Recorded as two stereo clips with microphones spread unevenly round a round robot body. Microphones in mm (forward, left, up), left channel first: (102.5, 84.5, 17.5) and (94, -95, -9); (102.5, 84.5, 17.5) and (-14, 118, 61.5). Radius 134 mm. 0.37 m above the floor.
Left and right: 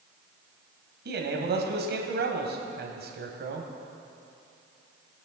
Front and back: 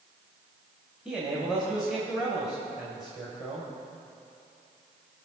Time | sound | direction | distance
1.1 | a man speaking | 100° right | 1.7 m